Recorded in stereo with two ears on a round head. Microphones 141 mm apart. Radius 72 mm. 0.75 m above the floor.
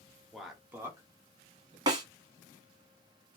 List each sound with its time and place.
0.3 s a man speaking: centre (ahead or behind), 0.9 m; by 1.8 s 40° right (ahead or behind), 1.1 m
1.9 s a snare drum: 30° right (ahead or behind), 1.0 m